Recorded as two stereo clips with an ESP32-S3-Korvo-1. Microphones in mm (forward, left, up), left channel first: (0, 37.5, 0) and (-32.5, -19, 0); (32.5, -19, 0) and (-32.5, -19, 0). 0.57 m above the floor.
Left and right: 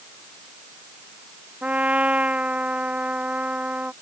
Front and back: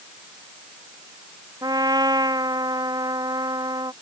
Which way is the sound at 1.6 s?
170° left.